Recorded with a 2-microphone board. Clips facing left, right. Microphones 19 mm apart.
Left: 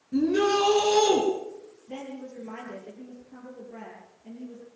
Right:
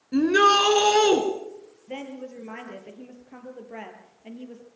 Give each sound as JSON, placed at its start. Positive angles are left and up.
{"t": 0.1, "sound": "a shout", "side_deg": -60, "distance_m": 3.5}
{"t": 1.9, "sound": "a woman speaking", "side_deg": -70, "distance_m": 5.5}